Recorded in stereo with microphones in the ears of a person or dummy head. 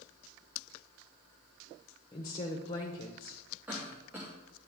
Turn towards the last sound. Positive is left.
turn(degrees=-10)  # may be behind; listen again after turning